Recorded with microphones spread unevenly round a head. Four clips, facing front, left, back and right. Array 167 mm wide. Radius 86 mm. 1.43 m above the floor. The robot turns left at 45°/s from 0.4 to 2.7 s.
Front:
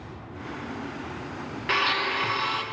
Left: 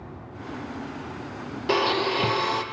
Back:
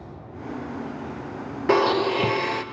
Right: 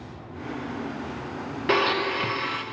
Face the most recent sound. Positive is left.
turn(degrees=135)